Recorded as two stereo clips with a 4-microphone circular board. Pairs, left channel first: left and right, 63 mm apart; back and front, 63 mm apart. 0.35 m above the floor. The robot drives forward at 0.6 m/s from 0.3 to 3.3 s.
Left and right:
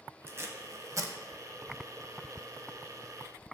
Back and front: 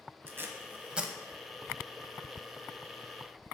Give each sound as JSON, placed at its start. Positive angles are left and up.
{"t": 0.3, "sound": "tape being pulled", "azimuth_deg": -50, "distance_m": 1.0}